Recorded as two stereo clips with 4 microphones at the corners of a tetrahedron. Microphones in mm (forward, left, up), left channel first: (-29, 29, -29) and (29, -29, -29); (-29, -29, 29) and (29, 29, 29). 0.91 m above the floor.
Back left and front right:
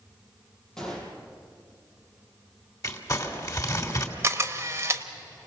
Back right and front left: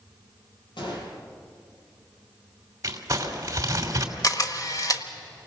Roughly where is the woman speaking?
No woman speaking in this recording.